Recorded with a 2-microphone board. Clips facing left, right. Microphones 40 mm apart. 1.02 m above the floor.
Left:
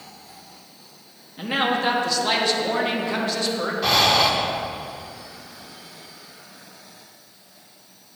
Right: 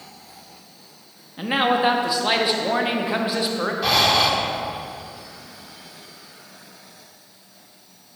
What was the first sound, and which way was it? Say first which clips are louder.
A man speaking: right 3 dB; 15° right (ahead or behind).